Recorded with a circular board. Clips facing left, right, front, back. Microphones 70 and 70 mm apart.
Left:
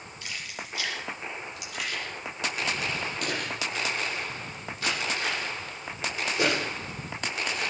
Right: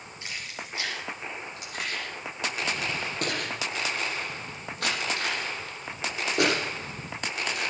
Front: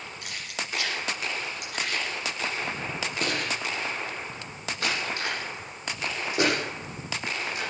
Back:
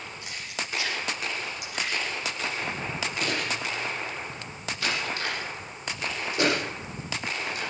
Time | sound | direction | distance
0.2 | keys jangling | 25° right | 5 m